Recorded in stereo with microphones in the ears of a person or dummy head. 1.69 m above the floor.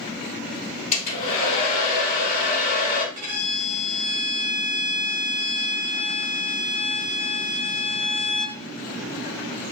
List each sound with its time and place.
0.9 s a hair dryer: 35° left (ahead or behind), 2.5 m
3.1 s a violin: 35° right (ahead or behind), 1.6 m